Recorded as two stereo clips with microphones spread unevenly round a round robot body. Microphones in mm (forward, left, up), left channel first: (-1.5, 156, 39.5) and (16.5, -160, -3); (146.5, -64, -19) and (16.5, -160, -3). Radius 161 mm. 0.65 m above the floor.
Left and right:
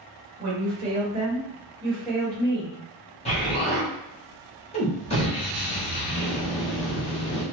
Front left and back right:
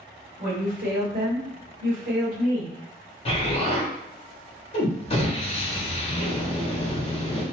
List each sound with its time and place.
0.4 s a woman speaking: 130° right, 1.6 m; by 2.8 s 165° left, 1.1 m
3.2 s an explosion: 20° left, 1.2 m